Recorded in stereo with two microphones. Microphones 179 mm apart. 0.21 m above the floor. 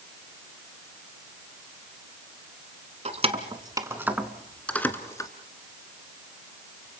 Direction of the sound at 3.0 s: 40° right (ahead or behind).